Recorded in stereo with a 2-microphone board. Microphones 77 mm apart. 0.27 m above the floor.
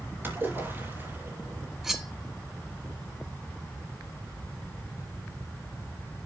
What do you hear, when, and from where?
0.2 s a splash: 25° right (ahead or behind), 4.5 m
1.8 s cutlery clinking: centre (ahead or behind), 1.4 m